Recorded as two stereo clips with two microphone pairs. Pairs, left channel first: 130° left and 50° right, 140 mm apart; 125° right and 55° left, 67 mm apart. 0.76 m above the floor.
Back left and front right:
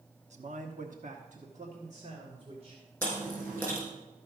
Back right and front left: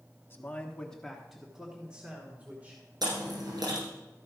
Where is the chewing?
55° left, 5.5 m.